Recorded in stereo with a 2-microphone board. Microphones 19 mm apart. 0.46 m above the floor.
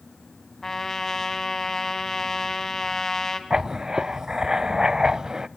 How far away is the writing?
About 0.5 m.